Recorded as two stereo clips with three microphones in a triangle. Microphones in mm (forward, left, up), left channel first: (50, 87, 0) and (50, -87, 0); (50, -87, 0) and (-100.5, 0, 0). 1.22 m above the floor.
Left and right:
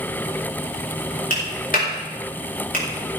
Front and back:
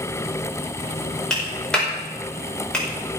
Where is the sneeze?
I don't hear a sneeze.